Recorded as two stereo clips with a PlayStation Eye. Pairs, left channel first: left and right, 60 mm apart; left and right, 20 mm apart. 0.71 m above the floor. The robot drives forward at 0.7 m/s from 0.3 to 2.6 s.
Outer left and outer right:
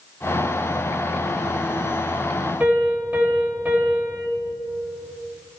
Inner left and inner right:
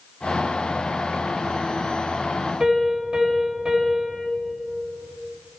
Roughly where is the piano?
Right.